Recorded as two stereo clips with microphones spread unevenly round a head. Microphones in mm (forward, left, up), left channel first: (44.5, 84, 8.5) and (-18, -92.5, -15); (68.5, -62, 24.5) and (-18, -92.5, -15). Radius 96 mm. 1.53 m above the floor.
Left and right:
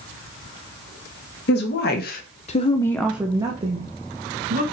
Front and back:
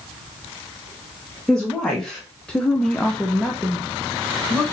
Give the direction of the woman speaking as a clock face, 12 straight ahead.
9 o'clock.